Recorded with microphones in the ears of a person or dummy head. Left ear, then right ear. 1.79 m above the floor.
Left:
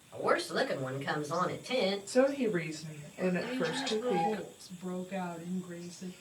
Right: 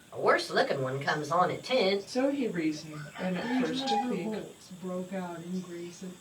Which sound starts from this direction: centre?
A woman speaking, at 0.1 s.